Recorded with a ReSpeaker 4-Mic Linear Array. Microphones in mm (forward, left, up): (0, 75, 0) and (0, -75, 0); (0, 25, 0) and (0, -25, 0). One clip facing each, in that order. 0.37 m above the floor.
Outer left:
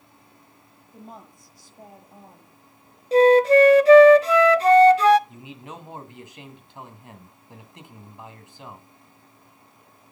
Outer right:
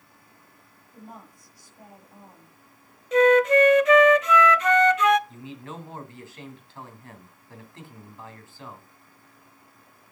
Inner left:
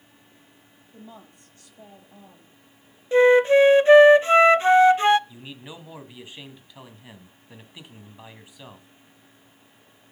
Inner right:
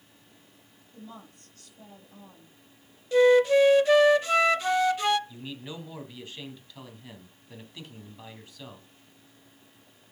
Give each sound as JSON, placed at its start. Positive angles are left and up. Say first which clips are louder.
{"t": 0.9, "sound": "a woman speaking", "louder": "outer left 1 dB, inner left 1 dB", "side_deg": 30, "distance_m": 8.0}
{"t": 3.1, "sound": "a flute", "louder": "outer left 3 dB, inner left 4 dB", "side_deg": 30, "distance_m": 0.5}
{"t": 5.3, "sound": "a man speaking", "louder": "outer right 1 dB, inner right 1 dB", "side_deg": 20, "distance_m": 2.5}